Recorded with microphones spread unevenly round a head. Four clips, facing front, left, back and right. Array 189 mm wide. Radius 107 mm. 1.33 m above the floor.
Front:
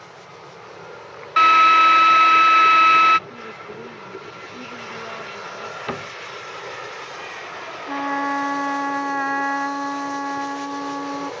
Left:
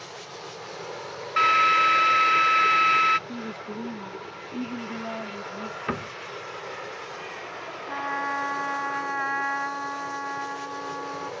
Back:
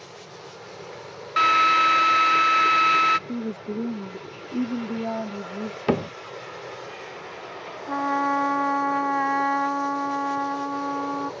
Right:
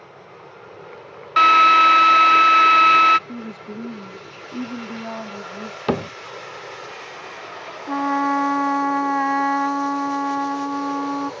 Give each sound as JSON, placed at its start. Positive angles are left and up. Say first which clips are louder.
{"t": 1.4, "sound": "a drill", "louder": "right 8 dB, front 6 dB", "azimuth_deg": -110}
{"t": 3.3, "sound": "a woman speaking", "louder": "right 2 dB, back 6 dB", "azimuth_deg": -170}
{"t": 5.9, "sound": "a cupboard door", "louder": "right 10 dB, back 8 dB", "azimuth_deg": -95}
{"t": 7.9, "sound": "a trumpet", "louder": "right 10 dB, even", "azimuth_deg": -85}